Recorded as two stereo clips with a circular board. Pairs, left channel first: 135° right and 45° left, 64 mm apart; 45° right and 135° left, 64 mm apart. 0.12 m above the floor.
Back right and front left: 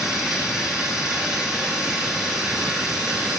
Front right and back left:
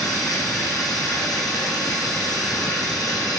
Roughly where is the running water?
Ahead right.